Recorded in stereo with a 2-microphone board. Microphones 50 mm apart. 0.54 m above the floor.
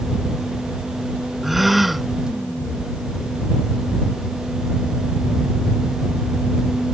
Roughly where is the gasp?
Centre.